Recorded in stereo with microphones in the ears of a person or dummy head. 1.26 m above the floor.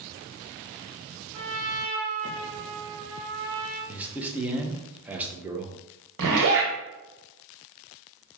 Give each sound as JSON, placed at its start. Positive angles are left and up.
{"t": 1.3, "sound": "a trumpet", "side_deg": -70, "distance_m": 1.4}
{"t": 3.9, "sound": "a man speaking", "side_deg": -10, "distance_m": 0.9}
{"t": 6.2, "sound": "a zipper", "side_deg": -70, "distance_m": 1.4}